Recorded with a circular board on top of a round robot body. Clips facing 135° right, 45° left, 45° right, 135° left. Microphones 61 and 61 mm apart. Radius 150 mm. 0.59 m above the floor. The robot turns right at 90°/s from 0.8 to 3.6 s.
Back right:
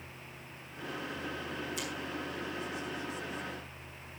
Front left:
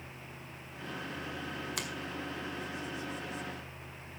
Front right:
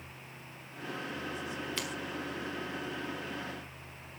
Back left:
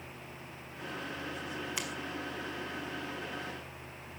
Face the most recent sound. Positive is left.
turn(degrees=-135)